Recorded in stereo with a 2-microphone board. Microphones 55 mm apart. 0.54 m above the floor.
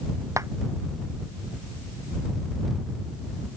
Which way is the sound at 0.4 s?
75° right (ahead or behind).